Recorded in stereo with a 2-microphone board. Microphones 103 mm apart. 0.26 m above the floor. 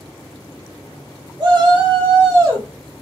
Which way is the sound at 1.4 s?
45° right (ahead or behind).